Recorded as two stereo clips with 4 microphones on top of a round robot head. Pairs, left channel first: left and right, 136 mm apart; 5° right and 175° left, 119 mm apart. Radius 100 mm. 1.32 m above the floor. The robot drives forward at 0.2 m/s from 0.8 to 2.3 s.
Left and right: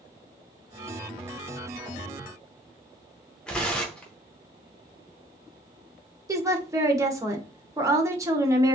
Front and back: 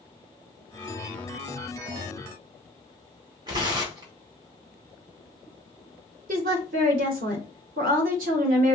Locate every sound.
3.5 s tearing paper: 170° left, 0.5 m
6.3 s a woman speaking: 160° right, 0.9 m